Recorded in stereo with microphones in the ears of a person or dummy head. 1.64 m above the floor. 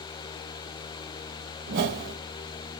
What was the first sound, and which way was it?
A whoosh, 40° right (ahead or behind).